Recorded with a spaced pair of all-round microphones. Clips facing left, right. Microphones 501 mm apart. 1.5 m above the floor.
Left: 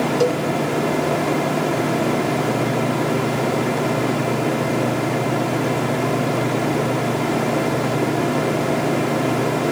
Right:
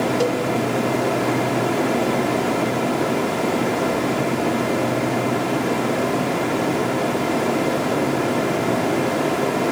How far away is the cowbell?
About 0.6 m.